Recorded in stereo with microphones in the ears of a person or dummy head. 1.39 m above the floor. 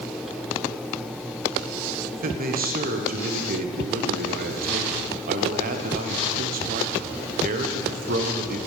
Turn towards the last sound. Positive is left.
turn(degrees=-45)  # may be behind; listen again after turning